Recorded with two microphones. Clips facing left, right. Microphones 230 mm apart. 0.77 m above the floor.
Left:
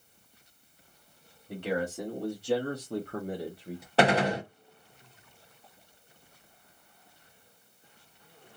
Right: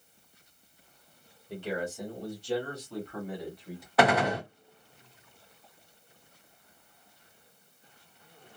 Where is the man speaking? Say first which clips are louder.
Left 3 dB; 60° left (ahead or behind), 1.4 m; by 3.9 s 20° left (ahead or behind), 0.9 m.